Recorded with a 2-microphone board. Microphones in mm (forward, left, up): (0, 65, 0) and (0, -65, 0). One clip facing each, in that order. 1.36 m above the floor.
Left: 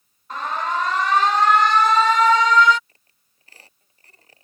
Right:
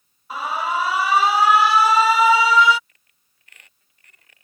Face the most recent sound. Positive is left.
turn(degrees=30)  # may be behind; listen again after turning